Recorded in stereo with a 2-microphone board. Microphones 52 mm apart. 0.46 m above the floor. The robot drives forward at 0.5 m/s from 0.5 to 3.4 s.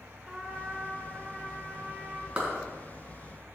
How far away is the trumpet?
About 1.6 m.